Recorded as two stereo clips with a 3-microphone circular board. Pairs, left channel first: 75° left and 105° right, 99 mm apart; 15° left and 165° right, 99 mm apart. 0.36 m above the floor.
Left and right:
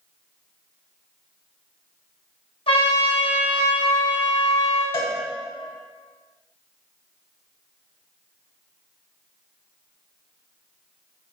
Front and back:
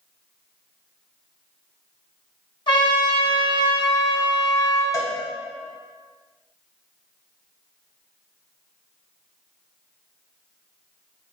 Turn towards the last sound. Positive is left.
turn(degrees=70)